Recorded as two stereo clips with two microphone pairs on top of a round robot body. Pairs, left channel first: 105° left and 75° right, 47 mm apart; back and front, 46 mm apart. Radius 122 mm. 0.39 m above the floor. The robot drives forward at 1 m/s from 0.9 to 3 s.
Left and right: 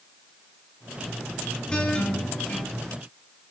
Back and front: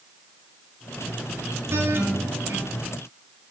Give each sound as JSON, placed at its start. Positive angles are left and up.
{"t": 1.7, "sound": "a guitar", "azimuth_deg": 35, "distance_m": 3.5}